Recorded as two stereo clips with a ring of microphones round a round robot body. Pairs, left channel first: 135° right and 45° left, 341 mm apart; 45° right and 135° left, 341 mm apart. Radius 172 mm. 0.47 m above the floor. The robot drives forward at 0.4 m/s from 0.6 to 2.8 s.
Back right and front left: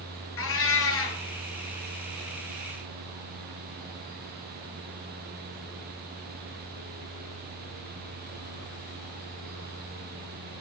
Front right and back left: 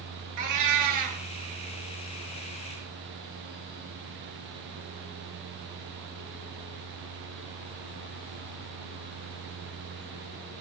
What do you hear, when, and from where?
0.4 s a cat meowing: 170° left, 2 m; by 1.2 s 175° left, 2.5 m